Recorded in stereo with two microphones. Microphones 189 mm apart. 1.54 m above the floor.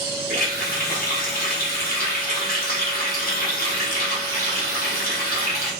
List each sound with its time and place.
0.3 s a running tap: 55° left (ahead or behind), 1.1 m